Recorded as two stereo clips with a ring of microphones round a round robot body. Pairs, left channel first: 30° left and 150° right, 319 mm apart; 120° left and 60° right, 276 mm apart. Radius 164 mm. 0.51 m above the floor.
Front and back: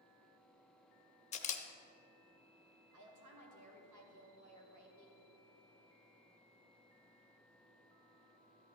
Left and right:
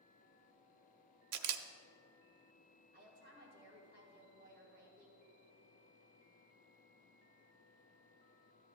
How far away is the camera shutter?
About 0.7 m.